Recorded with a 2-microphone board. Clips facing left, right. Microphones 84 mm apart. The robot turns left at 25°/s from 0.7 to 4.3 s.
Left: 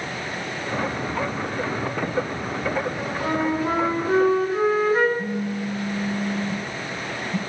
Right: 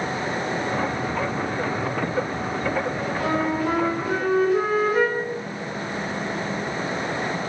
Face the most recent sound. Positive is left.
turn(degrees=75)  # may be behind; listen again after turning